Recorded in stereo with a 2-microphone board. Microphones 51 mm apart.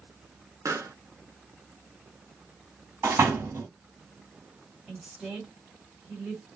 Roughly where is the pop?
Right.